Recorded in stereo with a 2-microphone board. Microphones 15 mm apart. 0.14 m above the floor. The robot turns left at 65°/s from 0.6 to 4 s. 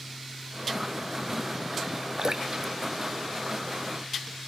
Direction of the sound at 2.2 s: 50° right (ahead or behind).